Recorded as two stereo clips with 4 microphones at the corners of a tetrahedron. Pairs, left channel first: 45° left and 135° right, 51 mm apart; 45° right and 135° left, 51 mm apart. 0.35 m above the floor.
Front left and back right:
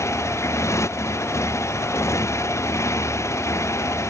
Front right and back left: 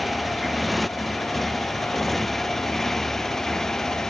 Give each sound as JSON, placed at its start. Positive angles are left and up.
{"t": 0.0, "sound": "a motorcycle", "azimuth_deg": 45}